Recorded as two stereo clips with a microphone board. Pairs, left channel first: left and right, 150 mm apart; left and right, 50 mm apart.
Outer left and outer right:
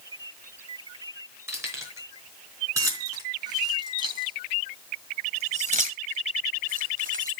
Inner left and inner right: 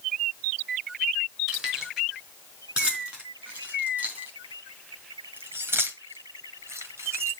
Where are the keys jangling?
15° right (ahead or behind), 4.5 m; by 7.3 s 65° right (ahead or behind), 1.6 m.